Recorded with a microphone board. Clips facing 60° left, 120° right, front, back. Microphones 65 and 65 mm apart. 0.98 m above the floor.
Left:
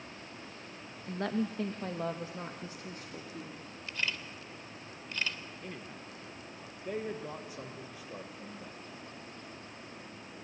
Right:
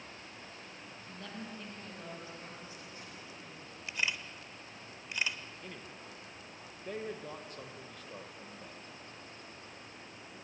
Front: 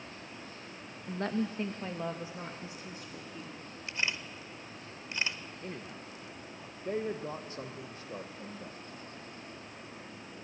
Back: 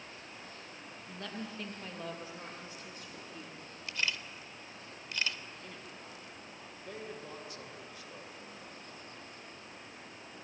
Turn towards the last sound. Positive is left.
turn(degrees=-15)